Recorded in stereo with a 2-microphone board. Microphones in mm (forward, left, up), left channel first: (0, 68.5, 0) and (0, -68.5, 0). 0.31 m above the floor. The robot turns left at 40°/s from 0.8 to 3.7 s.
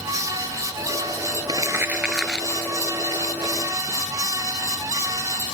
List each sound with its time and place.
1.5 s crumpling: 30° right (ahead or behind); by 5.5 s 55° left (ahead or behind)